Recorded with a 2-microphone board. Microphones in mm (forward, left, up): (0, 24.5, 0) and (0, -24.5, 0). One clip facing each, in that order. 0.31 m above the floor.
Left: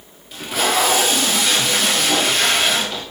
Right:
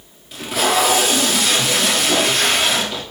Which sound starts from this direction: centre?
Tape being pulled, at 0.3 s.